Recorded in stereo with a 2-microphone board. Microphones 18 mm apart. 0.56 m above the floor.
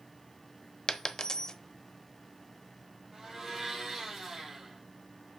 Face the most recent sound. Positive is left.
turn(degrees=-15)  # may be behind; listen again after turning